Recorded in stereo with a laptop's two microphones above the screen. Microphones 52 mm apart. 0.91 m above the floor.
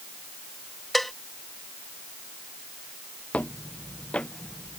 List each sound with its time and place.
0.9 s a cowbell: 5° left (ahead or behind)
3.3 s footsteps: 30° left (ahead or behind); by 4.8 s 20° left (ahead or behind)